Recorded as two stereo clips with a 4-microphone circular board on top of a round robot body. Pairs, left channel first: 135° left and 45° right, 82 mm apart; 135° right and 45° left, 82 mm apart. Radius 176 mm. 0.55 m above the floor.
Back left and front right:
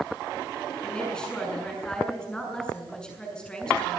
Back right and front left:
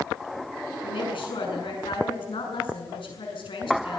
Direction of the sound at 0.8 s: 145° right.